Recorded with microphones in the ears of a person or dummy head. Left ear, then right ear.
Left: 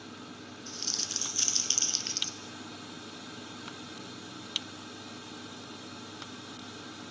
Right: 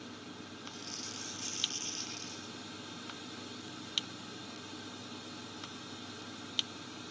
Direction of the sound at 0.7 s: 70° left (ahead or behind).